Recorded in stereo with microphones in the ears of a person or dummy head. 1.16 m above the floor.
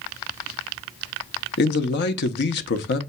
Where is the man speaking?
55° left (ahead or behind), 0.7 m.